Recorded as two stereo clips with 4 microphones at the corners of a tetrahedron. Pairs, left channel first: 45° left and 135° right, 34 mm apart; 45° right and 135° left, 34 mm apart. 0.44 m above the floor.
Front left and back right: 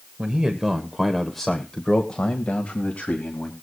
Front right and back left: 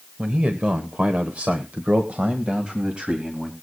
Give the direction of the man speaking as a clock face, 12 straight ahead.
6 o'clock.